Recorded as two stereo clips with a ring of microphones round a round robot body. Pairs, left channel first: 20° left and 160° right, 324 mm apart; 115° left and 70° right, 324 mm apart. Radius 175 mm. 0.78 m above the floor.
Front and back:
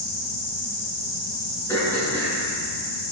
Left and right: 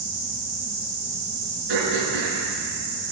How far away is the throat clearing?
About 6 m.